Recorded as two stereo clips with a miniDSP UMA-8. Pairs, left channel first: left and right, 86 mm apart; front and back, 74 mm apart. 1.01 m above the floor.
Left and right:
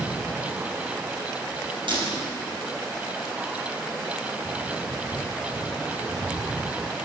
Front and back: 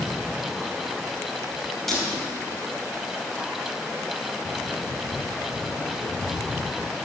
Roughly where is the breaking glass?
Right.